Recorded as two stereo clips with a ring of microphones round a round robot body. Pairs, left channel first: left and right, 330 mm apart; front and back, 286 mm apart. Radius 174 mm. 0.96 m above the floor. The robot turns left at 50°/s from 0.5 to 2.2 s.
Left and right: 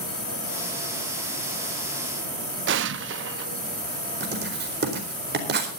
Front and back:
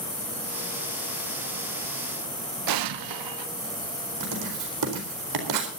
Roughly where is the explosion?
Behind right.